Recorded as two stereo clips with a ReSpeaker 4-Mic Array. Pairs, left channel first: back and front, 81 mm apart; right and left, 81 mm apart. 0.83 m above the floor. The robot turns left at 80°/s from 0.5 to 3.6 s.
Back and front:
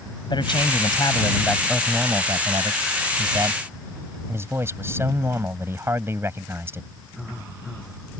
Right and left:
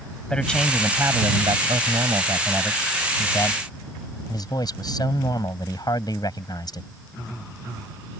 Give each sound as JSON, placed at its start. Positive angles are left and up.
{"t": 0.3, "sound": "a man speaking", "azimuth_deg": -170}